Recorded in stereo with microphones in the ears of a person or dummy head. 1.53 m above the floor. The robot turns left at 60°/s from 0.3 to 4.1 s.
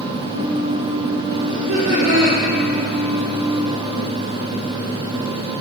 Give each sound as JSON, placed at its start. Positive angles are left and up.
{"t": 1.5, "sound": "laughter", "azimuth_deg": -60, "distance_m": 1.1}